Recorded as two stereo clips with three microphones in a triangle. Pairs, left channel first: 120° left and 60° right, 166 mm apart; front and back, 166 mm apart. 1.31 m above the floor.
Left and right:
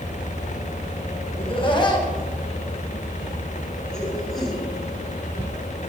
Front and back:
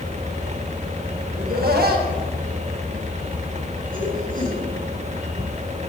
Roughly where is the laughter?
Behind.